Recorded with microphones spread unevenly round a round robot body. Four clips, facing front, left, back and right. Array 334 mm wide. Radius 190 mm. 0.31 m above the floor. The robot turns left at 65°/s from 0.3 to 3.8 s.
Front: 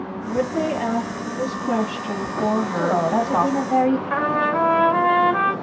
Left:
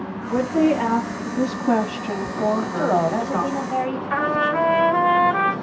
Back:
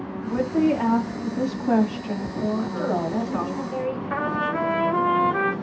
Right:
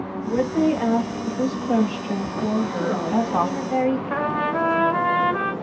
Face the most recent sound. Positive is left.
turn(degrees=-145)